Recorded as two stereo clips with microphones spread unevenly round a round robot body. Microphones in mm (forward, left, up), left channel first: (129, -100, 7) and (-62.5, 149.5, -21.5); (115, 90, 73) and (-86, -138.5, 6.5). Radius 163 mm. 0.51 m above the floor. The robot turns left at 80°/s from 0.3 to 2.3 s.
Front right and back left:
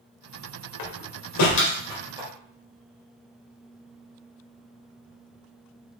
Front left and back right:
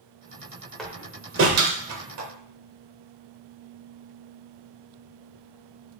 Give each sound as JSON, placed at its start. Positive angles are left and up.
{"t": 0.8, "sound": "a door slam", "azimuth_deg": -45, "distance_m": 1.8}